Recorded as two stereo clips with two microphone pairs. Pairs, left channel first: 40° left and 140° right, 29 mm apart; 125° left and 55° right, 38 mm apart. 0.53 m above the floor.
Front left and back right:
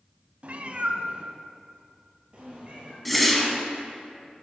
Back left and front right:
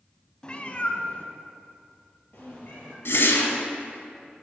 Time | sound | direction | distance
0.4 | a cat meowing | 170° right | 0.5 m
3.0 | a whoosh | 125° left | 1.0 m